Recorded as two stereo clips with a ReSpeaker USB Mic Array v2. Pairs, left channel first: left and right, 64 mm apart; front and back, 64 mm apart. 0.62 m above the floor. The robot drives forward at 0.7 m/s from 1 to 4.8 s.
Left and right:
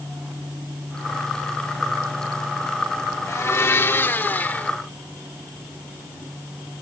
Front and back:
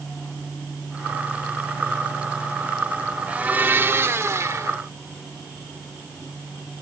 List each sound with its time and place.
3.3 s a blender: 115° left; by 4.8 s 150° left